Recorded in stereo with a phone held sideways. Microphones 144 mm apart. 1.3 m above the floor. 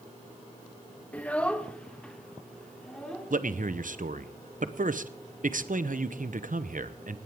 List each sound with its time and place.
1.1 s a child speaking: 10° left (ahead or behind), 0.7 m; by 3.3 s 5° left (ahead or behind), 3 m
3.3 s a man speaking: 65° right (ahead or behind), 0.8 m